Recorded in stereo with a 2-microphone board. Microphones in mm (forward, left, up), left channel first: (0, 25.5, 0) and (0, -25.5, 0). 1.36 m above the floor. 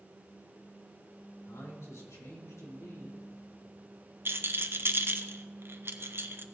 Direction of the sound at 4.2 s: 50° right (ahead or behind).